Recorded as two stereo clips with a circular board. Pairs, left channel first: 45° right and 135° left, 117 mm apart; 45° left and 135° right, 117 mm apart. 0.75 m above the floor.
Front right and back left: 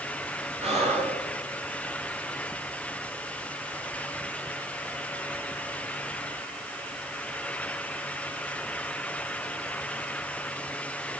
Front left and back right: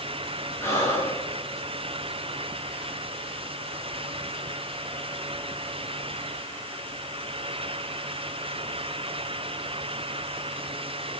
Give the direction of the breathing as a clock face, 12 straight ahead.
8 o'clock.